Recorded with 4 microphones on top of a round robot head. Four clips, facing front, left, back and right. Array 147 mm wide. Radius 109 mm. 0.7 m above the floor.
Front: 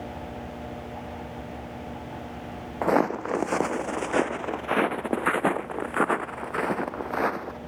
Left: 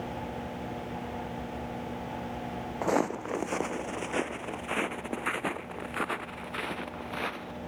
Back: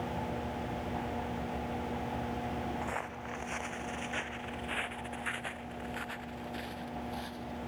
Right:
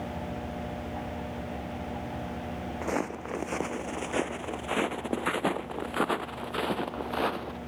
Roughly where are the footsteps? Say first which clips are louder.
Left 5 dB, front 15 dB; ahead.